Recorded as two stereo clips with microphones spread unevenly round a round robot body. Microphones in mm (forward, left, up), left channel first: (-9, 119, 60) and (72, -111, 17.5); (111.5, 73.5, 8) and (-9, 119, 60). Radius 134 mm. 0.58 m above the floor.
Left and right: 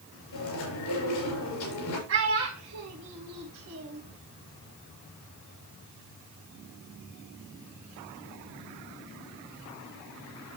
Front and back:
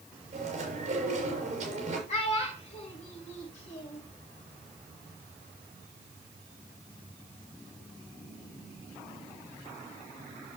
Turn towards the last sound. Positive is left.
turn(degrees=-50)